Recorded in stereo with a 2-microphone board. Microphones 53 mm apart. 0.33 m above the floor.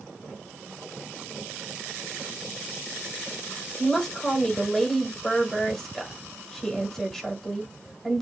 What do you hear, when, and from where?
3.8 s a woman speaking: 10° left (ahead or behind), 0.9 m